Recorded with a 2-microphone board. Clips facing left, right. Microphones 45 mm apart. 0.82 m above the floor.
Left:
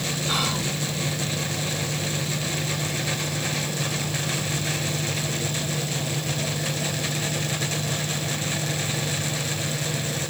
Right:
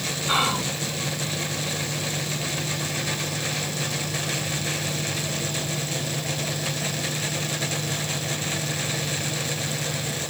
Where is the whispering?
20° right (ahead or behind).